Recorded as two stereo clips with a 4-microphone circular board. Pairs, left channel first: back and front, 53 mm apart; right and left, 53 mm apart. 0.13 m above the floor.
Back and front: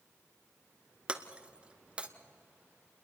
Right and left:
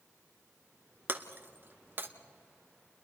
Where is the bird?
I don't hear a bird.